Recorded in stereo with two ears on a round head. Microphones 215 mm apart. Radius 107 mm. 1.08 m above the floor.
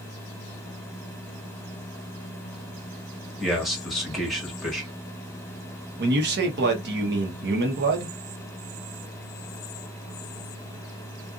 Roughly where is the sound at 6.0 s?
Right.